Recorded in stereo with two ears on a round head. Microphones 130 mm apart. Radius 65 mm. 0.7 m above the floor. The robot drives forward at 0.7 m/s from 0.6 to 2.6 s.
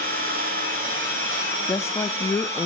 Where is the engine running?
60° right (ahead or behind), 6 m; by 2.7 s 50° right (ahead or behind), 6.5 m.